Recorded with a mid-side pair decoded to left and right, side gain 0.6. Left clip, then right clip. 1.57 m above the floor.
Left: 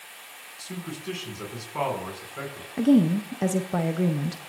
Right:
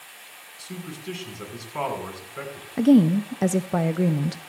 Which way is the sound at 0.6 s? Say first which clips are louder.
Left 1 dB; 5° left.